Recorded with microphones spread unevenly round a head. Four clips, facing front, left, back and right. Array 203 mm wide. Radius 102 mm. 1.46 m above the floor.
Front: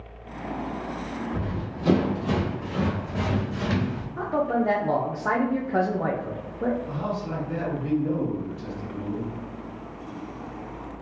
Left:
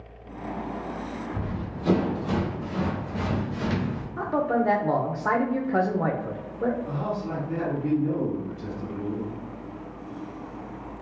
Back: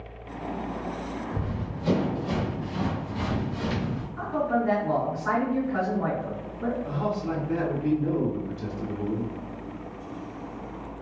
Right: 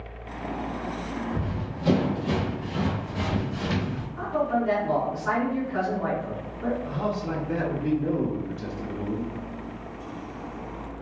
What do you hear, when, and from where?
1.3 s running footsteps: 45° right, 1.8 m; by 4.1 s 5° left, 2.5 m
4.2 s a man speaking: 45° left, 0.6 m
6.8 s a man speaking: 125° right, 1.1 m